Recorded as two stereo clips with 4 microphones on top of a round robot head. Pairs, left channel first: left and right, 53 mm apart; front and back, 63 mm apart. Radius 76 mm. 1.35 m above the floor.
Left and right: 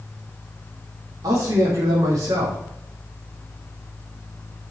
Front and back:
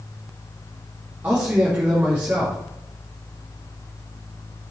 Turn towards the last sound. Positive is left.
turn(degrees=-110)